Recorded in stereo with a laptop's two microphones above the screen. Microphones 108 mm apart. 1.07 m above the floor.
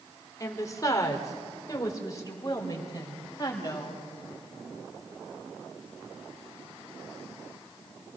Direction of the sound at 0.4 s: 30° left (ahead or behind).